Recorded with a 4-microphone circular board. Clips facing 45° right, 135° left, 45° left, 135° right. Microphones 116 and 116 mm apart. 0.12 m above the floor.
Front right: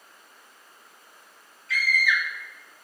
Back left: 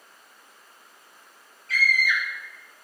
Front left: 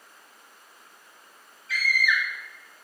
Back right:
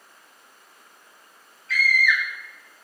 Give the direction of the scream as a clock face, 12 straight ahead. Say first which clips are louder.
Even, back right 3 dB; 9 o'clock.